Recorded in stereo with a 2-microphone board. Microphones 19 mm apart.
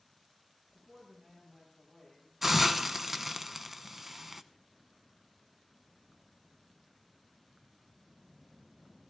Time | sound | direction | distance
0.7 | a woman speaking | 35° right (ahead or behind) | 8 m
2.4 | a hiss | 10° right (ahead or behind) | 0.6 m